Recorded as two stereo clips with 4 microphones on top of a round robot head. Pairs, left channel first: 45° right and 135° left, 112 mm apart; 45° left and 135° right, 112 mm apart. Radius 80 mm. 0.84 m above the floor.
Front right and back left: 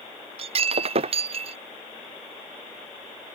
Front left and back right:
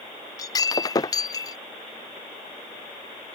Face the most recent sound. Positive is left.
turn(degrees=105)